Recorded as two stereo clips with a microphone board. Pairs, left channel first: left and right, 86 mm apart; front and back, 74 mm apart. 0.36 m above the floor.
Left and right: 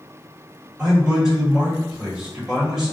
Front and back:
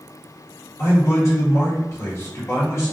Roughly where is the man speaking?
Ahead.